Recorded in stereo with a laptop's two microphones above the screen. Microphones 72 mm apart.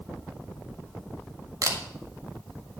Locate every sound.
1.6 s a camera shutter: 50° right (ahead or behind), 1.6 m